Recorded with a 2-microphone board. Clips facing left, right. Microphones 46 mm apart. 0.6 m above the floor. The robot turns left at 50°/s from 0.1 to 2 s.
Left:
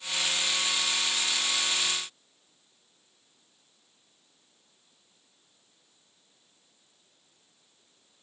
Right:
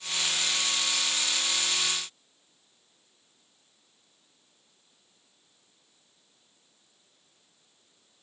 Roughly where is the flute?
I don't hear a flute.